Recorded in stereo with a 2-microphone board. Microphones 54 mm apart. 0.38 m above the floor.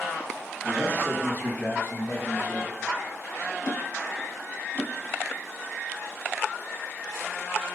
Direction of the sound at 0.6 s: 20° left (ahead or behind).